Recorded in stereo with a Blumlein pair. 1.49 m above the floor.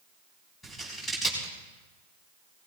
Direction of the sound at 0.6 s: 5° left.